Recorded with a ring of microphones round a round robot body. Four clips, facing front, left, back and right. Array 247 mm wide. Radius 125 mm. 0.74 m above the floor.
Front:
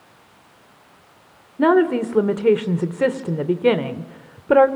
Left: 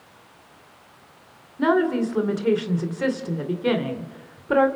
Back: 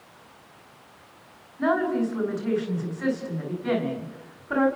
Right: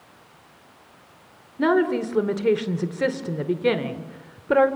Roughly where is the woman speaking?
Ahead.